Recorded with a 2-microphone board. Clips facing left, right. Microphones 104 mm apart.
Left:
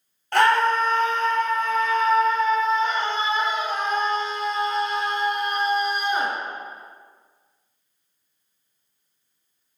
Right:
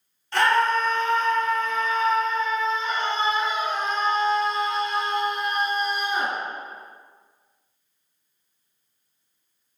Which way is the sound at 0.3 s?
55° left (ahead or behind).